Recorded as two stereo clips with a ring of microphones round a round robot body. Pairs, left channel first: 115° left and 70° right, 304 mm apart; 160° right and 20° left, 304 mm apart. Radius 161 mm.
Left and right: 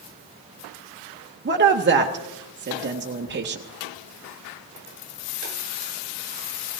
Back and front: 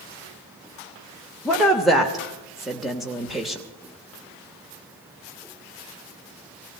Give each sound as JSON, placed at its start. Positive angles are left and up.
{"t": 1.4, "sound": "a woman speaking", "azimuth_deg": -65, "distance_m": 0.9}